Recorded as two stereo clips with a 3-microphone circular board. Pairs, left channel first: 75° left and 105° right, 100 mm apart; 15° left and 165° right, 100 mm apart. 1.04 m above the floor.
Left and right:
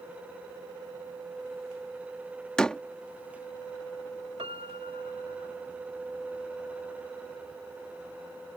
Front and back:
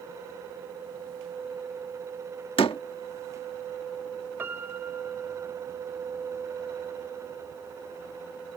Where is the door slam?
5° right.